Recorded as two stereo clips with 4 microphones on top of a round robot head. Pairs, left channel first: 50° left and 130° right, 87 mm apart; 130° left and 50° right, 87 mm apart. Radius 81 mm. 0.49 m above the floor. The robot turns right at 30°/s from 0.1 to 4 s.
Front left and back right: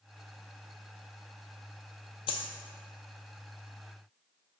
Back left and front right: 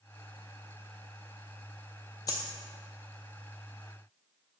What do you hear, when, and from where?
2.3 s a dropped coin: 80° left, 0.7 m; by 2.5 s 85° left, 0.7 m